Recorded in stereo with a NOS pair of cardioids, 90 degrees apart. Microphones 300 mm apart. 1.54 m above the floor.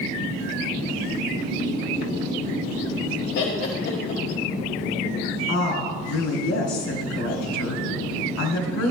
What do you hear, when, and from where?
3.4 s laughter: 60° left, 1.6 m
5.5 s a woman speaking: 70° left, 3.5 m